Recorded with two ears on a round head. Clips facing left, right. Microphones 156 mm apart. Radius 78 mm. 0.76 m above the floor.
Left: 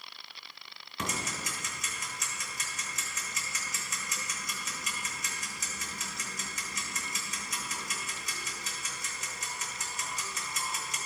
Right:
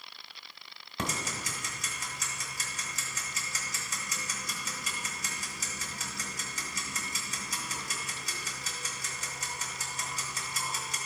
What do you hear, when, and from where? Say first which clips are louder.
1.0 s ticking: right 1 dB; 30° right (ahead or behind), 1.9 m